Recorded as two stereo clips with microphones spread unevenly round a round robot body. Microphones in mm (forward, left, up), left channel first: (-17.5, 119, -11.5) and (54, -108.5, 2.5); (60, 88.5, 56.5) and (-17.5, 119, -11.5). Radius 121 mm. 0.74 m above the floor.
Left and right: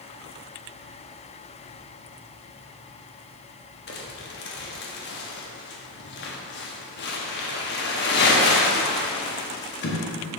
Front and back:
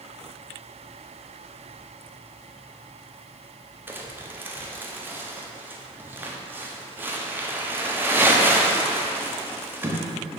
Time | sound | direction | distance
3.9 | crumpling | 145° left | 0.8 m